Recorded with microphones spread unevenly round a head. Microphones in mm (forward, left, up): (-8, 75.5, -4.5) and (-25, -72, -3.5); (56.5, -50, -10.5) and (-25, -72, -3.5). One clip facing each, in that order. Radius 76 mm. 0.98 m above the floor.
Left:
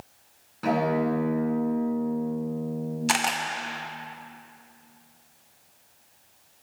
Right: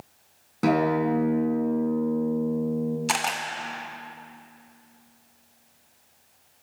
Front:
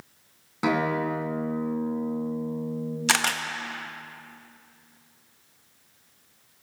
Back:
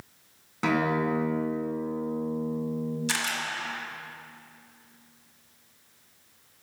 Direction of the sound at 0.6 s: 65° right.